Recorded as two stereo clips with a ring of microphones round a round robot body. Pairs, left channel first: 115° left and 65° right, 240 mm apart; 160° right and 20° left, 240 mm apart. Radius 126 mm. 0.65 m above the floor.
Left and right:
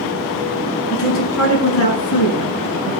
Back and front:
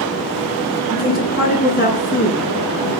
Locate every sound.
0.9 s a woman speaking: 150° left, 9.5 m; by 2.9 s 145° left, 11 m